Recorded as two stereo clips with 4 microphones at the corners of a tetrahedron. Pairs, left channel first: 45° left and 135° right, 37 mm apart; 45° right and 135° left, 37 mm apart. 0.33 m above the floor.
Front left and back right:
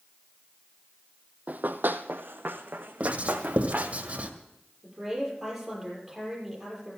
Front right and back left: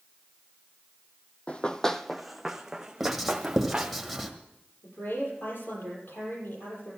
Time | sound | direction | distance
1.5 | running footsteps | 95° right | 0.6 m
3.0 | writing | 135° right | 1.5 m
4.8 | a woman speaking | 45° right | 7 m